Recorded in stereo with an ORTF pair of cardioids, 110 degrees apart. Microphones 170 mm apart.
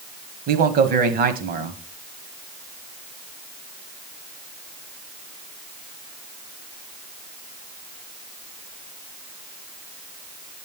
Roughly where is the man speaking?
Ahead right.